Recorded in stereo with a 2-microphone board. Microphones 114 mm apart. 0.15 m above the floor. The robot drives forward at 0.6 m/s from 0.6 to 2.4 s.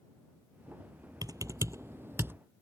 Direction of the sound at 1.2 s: 35° right (ahead or behind).